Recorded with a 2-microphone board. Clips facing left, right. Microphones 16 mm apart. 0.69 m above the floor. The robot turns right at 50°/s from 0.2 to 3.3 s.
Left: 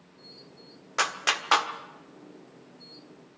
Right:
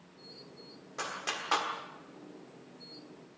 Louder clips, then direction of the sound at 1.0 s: Left 10 dB; 60° left (ahead or behind).